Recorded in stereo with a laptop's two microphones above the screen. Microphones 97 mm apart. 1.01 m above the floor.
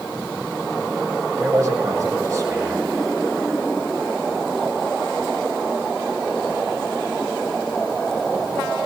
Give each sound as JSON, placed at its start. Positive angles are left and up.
{"t": 1.4, "sound": "a man speaking", "side_deg": -45, "distance_m": 2.5}